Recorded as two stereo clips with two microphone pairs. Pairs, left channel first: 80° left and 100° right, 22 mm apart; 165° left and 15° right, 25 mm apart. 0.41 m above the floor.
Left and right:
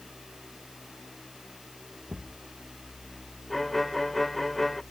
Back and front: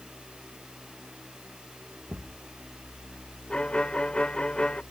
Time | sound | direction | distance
2.1 | a thud | 65° right | ?
3.5 | a violin | 160° left | ?